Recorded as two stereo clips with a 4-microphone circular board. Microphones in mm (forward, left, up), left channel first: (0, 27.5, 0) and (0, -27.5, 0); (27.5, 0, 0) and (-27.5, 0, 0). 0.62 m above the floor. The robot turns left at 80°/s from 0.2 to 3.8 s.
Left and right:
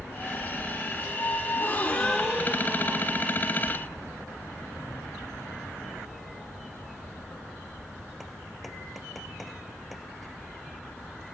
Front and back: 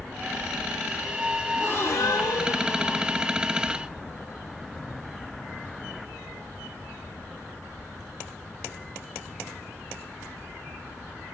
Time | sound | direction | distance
1.5 | a gasp | 55° left | 1.2 m